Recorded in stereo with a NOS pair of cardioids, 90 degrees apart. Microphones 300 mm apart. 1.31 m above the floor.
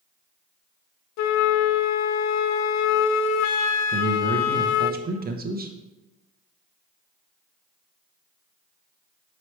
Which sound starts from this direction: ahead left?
A flute, at 1.2 s.